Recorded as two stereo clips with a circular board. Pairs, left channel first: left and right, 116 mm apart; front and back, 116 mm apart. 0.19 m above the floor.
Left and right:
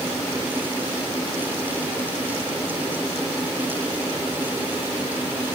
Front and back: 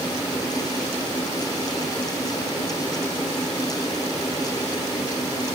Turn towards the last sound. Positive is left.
No sound to turn to.